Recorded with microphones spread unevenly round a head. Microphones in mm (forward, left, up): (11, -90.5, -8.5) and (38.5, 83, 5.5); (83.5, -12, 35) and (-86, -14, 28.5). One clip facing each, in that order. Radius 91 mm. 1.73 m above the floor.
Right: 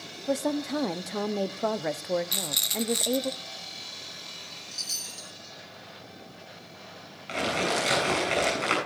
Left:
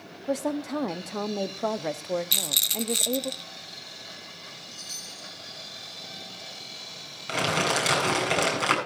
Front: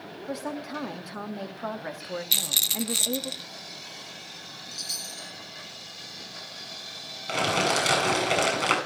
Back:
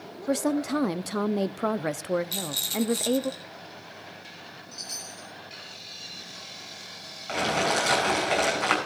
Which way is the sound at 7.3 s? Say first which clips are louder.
Left 1 dB, even; 55° left.